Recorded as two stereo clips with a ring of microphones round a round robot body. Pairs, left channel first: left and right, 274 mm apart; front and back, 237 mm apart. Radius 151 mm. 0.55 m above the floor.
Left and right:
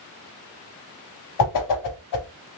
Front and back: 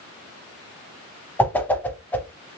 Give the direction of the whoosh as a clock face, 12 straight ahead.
9 o'clock.